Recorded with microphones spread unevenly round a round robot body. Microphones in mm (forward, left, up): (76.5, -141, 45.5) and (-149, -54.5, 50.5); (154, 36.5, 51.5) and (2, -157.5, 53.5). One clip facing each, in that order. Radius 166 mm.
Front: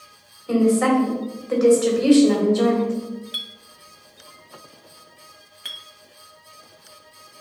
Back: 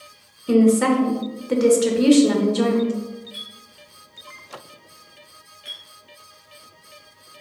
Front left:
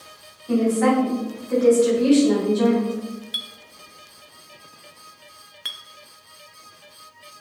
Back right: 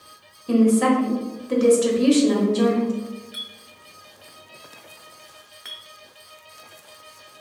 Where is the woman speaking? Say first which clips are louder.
Back 2 dB, back right 2 dB; 165° right, 1.0 m.